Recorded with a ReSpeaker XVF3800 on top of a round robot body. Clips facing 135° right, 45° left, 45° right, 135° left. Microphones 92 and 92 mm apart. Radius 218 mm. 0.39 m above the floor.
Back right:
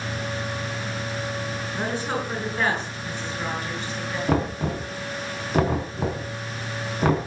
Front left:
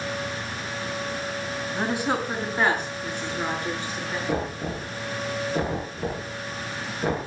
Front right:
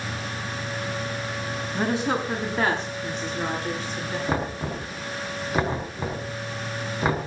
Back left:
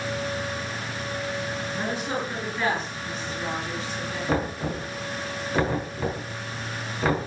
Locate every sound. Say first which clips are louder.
1.7 s a woman speaking: front left 2 dB, front right 6 dB; 30° right, 6.5 m; by 4.2 s 25° right, 9 m
4.3 s knocking: back right 6 dB, back left 3 dB; 120° right, 5 m